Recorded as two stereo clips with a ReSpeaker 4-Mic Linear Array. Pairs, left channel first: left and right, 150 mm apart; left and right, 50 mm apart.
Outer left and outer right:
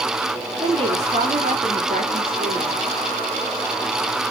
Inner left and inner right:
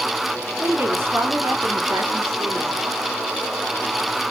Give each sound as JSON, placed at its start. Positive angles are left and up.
{"t": 0.6, "sound": "a woman speaking", "side_deg": -40, "distance_m": 2.5}